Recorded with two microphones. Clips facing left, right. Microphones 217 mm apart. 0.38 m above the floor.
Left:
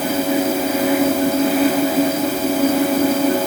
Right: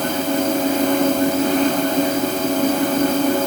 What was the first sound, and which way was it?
Only background noise.